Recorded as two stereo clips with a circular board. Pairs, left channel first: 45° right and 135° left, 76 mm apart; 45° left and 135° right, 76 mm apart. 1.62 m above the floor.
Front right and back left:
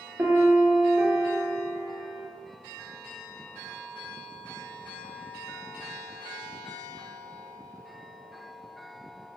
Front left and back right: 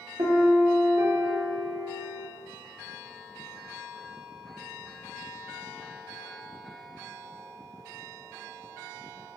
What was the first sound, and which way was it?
A piano, 165° right.